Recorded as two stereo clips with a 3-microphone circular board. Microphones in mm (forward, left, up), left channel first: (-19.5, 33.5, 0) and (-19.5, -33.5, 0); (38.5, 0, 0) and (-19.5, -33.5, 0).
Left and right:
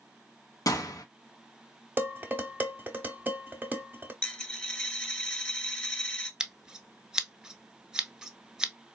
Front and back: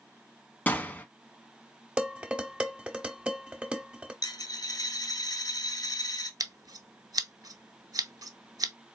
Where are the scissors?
170° right, 0.5 m.